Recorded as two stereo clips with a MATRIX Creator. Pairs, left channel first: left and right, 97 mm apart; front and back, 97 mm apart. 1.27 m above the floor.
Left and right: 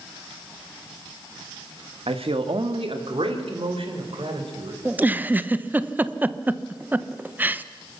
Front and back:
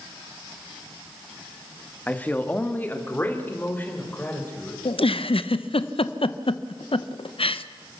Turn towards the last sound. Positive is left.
turn(degrees=-15)